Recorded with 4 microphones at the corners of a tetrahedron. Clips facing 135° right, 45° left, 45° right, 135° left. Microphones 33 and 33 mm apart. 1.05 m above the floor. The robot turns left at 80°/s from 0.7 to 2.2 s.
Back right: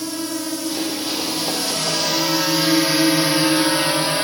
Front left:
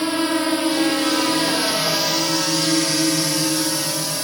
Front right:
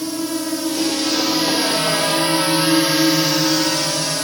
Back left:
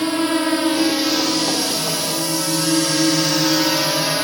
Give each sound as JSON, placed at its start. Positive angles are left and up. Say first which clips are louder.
{"t": 0.0, "sound": "a drone", "louder": "front left 6 dB, back left 5 dB", "azimuth_deg": 90}